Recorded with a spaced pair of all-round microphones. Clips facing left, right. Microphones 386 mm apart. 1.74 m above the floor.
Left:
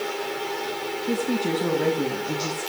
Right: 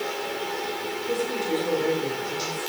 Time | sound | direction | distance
1.1 | a woman speaking | 70° left (ahead or behind) | 2.5 m